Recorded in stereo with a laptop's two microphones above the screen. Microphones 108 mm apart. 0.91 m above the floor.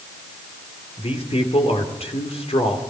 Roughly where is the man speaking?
Left.